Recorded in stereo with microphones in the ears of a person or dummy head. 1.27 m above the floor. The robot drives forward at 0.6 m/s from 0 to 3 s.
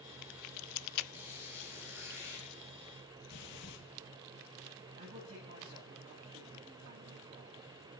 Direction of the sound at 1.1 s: 15° right (ahead or behind).